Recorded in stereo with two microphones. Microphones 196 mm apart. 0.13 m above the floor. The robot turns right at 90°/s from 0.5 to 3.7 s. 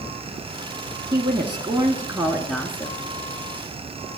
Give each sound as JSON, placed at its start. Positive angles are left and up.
{"t": 1.1, "sound": "a woman speaking", "side_deg": -20, "distance_m": 1.2}